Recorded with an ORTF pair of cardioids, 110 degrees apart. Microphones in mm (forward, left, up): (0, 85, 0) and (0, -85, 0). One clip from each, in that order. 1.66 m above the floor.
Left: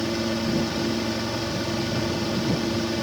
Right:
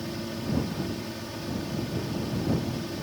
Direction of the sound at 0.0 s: 60° left.